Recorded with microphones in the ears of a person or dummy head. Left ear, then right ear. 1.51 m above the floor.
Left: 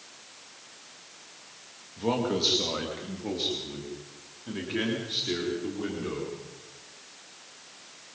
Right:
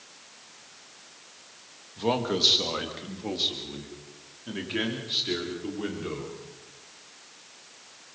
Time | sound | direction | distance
2.0 | a man speaking | 25° right (ahead or behind) | 2 m